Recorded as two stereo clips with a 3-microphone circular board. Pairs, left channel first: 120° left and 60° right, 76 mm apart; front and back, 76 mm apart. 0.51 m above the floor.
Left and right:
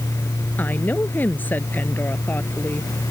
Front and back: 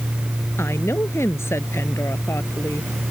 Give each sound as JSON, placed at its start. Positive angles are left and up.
{"t": 0.6, "sound": "a woman speaking", "azimuth_deg": 55}